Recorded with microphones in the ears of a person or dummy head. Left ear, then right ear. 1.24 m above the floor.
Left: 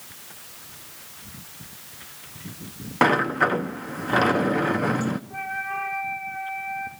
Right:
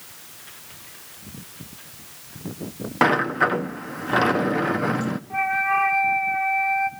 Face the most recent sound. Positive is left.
turn(degrees=-40)  # may be behind; listen again after turning